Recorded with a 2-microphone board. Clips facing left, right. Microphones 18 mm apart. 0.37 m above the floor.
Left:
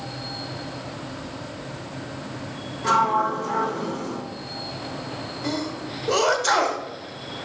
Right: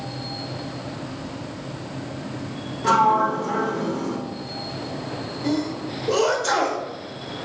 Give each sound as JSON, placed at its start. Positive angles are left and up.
{"t": 2.8, "sound": "a sliding door", "side_deg": 10, "distance_m": 2.5}
{"t": 5.4, "sound": "a sneeze", "side_deg": 15, "distance_m": 1.0}